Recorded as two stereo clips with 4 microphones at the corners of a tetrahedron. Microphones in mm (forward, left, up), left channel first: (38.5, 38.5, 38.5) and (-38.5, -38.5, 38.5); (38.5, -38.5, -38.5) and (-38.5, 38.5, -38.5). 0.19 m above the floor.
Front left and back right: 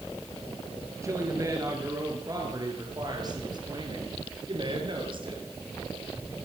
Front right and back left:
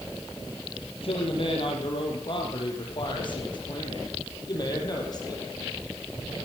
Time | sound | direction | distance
1.0 | a man speaking | 75° right | 5.5 m